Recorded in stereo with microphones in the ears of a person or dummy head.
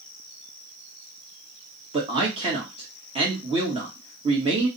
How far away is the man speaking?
About 1.2 m.